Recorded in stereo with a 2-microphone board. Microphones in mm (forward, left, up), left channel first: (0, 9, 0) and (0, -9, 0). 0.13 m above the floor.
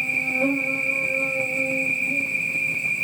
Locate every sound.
0.0 s an insect: 70° right (ahead or behind), 0.9 m